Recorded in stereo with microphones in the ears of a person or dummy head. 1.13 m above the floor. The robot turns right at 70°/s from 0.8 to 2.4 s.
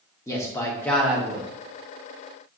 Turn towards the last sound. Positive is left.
turn(degrees=-80)